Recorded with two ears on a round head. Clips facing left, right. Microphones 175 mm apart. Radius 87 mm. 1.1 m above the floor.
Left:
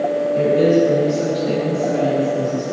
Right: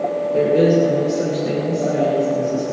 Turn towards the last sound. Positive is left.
turn(degrees=-65)  # may be behind; listen again after turning